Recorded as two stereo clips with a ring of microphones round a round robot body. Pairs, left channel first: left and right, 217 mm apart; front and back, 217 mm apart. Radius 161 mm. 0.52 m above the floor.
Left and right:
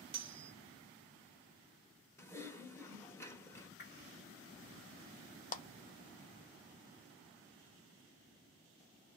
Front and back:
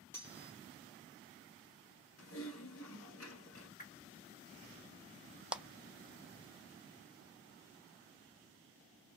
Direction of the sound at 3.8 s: 50° left.